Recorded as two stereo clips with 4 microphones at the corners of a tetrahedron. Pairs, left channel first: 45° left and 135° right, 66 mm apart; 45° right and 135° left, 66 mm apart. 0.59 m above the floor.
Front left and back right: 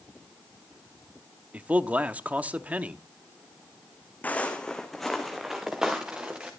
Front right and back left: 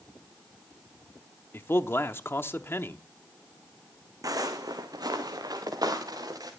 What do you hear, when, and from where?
1.5 s a man speaking: 75° right, 0.8 m
4.2 s footsteps: 110° left, 1.9 m; by 6.5 s 155° left, 3.5 m